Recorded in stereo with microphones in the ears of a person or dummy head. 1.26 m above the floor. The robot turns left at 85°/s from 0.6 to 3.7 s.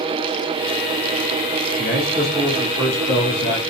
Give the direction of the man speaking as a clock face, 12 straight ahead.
3 o'clock.